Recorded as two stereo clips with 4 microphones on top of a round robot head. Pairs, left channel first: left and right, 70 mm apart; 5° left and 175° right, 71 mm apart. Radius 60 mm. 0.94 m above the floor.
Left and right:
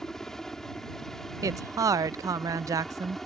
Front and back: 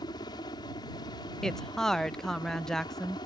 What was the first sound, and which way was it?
A helicopter, 5° left.